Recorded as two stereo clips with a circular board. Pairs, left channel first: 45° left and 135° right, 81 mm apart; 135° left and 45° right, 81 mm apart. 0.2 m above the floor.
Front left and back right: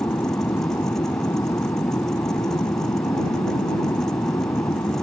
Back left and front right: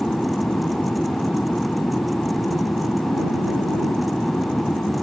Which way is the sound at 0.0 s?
65° left.